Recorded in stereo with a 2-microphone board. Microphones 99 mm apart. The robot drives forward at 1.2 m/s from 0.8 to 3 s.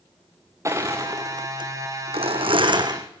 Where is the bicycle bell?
I don't hear a bicycle bell.